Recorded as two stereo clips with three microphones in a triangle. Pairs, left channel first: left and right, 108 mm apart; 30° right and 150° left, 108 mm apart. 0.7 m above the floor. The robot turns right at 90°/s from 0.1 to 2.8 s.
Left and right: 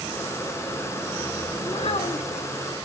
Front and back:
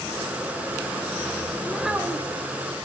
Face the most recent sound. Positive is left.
turn(degrees=145)